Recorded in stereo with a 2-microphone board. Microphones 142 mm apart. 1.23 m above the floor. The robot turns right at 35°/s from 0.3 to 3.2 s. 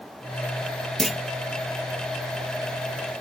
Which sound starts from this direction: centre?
A clunk, at 1.0 s.